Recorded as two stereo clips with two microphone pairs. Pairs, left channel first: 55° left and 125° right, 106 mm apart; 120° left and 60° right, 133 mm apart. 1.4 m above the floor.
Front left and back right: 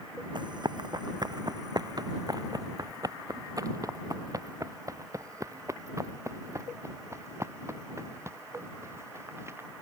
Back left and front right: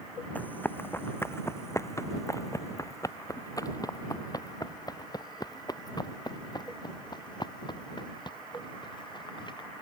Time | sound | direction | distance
0.3 | running footsteps | 160° right | ?